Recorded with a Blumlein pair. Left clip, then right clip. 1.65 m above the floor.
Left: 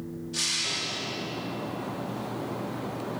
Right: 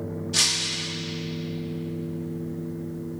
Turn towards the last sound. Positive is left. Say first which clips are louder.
# right 5 dB
turn(degrees=-25)